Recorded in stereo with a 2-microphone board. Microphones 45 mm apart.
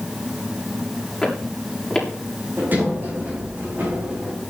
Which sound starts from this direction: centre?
Footsteps, at 1.2 s.